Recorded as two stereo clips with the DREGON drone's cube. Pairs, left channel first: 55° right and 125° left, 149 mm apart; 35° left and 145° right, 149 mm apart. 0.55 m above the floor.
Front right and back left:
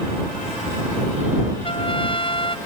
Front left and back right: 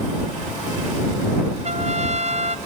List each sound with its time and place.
1.6 s a trumpet: 110° right